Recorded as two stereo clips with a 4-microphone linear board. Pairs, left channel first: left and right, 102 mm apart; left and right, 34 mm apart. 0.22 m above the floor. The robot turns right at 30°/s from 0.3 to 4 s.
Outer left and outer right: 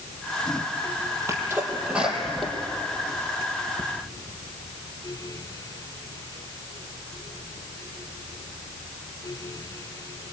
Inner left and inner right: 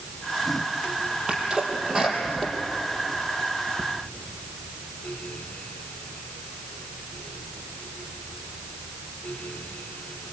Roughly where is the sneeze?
Right.